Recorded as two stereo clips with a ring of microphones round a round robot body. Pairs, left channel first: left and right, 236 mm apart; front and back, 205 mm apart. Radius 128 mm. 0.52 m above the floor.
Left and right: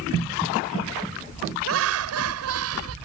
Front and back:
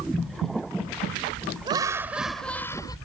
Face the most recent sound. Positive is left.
turn(degrees=-75)